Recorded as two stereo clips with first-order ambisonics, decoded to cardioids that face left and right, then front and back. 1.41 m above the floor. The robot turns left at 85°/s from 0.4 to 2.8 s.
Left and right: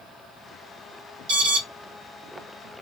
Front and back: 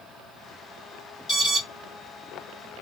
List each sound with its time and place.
1.3 s an alarm: 75° right, 3 m; by 1.6 s 100° right, 3 m